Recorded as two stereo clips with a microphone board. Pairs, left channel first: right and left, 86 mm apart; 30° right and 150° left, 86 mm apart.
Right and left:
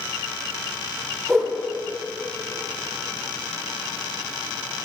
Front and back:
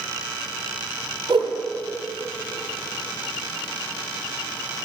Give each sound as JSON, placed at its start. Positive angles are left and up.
{"t": 1.3, "sound": "a whoosh", "azimuth_deg": -175, "distance_m": 3.0}